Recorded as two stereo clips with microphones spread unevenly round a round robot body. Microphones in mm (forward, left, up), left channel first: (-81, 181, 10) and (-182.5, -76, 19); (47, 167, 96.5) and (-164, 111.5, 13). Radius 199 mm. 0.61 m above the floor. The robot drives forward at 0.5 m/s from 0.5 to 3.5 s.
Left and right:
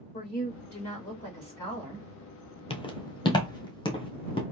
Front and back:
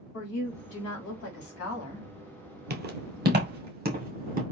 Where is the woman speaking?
5° right, 2.5 m.